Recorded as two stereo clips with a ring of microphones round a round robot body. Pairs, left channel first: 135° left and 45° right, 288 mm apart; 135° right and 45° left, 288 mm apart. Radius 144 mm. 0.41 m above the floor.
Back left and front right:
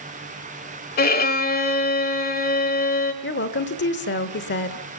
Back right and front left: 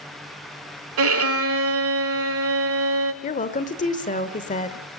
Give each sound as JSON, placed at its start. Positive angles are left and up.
{"t": 1.0, "sound": "a violin", "azimuth_deg": 80, "distance_m": 1.3}
{"t": 3.2, "sound": "a woman speaking", "azimuth_deg": 170, "distance_m": 1.1}